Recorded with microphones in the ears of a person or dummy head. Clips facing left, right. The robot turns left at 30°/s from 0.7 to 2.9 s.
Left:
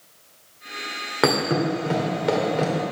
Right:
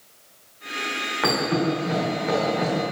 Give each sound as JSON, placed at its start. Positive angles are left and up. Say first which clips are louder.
{"t": 1.2, "sound": "a thud", "louder": "left 2 dB", "side_deg": 60, "distance_m": 1.6}